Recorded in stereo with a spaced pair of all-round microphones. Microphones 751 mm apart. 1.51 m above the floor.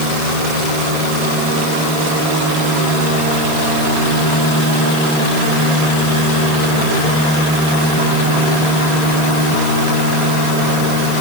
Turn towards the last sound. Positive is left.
No sound to turn to.